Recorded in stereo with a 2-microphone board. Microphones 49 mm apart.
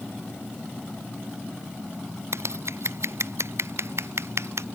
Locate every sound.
2.3 s scissors: 65° right (ahead or behind)